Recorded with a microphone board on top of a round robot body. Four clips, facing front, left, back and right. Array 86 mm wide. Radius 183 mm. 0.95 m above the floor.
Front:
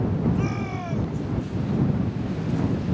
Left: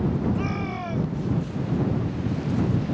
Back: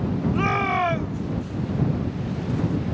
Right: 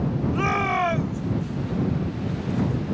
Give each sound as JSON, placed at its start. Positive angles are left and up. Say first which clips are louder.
{"t": 0.3, "sound": "a shout", "louder": "right 5 dB, back 5 dB", "azimuth_deg": -135}